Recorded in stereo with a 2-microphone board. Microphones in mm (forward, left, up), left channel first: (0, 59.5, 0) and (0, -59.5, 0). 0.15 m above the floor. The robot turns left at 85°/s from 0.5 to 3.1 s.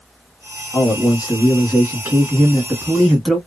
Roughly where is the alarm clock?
No alarm clock in this recording.